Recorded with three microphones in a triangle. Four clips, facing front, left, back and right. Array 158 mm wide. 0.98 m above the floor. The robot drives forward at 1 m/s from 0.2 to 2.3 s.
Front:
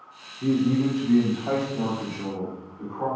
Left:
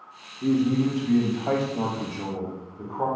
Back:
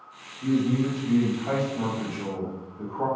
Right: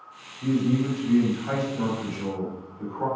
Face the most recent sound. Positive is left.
turn(degrees=125)